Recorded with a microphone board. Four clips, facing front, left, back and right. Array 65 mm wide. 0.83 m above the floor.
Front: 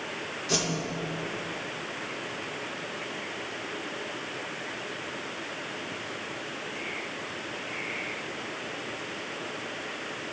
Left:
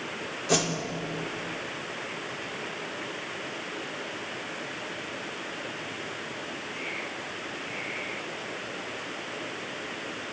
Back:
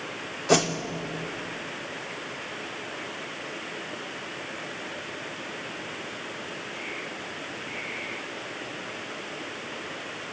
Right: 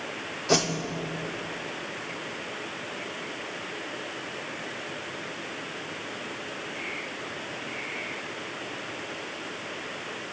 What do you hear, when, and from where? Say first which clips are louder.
0.5 s a whoosh: right 2 dB, back 9 dB; 170° right, 0.7 m